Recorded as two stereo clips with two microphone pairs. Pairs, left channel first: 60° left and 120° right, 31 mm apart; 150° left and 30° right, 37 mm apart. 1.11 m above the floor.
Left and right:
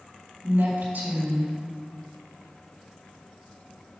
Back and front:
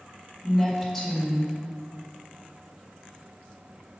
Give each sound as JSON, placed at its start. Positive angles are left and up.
{"t": 0.4, "sound": "a woman speaking", "azimuth_deg": -125, "distance_m": 2.0}